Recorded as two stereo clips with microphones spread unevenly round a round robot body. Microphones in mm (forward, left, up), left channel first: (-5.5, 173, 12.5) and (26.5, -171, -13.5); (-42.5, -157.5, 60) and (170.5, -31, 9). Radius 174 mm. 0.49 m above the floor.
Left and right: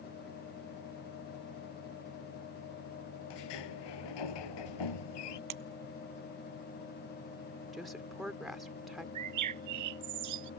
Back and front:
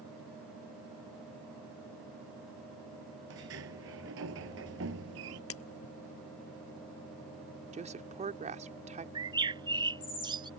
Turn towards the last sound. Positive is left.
turn(degrees=-45)